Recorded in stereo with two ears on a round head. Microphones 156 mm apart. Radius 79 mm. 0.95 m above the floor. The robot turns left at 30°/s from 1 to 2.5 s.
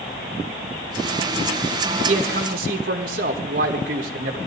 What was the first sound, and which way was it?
A man speaking, 45° right (ahead or behind).